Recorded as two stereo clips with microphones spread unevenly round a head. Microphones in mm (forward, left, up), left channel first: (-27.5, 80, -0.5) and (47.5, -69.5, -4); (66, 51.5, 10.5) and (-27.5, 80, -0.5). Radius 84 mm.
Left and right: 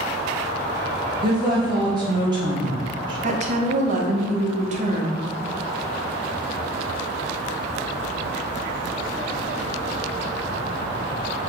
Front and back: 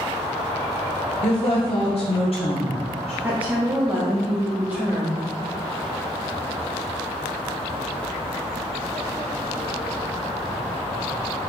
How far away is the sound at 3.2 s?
About 0.7 m.